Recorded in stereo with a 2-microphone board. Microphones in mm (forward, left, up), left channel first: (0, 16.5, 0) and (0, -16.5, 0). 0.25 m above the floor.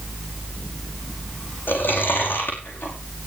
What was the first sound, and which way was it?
Chewing, 80° left.